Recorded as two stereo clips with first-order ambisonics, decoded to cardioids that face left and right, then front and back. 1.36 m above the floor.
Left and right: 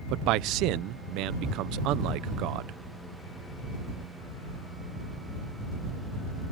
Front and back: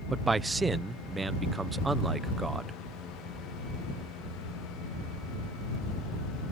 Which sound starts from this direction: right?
A man speaking, at 0.1 s.